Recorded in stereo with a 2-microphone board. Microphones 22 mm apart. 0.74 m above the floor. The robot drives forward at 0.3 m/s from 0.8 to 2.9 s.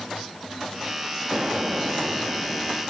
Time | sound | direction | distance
1.3 | an explosion | 45° right (ahead or behind) | 0.8 m